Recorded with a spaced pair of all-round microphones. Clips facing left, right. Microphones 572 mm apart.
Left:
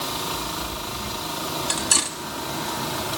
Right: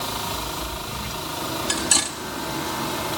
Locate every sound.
1.7 s cutlery clinking: 15° right (ahead or behind), 1.9 m